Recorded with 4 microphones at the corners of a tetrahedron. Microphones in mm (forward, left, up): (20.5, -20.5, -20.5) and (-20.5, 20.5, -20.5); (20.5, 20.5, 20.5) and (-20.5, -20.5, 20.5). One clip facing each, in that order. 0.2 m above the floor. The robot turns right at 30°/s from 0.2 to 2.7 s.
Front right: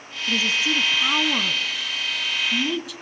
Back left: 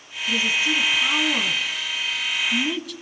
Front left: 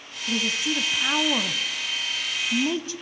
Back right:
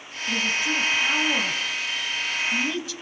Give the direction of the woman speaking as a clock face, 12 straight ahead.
1 o'clock.